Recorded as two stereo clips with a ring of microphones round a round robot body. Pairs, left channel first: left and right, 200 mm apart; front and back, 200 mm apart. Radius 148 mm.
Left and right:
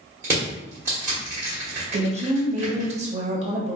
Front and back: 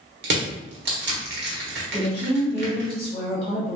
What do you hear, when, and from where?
0.2 s crushing: 170° right, 1.4 m
1.9 s a woman speaking: 50° right, 0.9 m